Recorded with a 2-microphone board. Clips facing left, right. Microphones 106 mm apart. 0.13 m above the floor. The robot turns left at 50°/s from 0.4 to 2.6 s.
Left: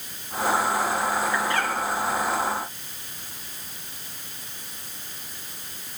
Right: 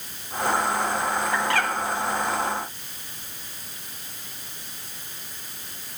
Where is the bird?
65° right (ahead or behind), 3 m.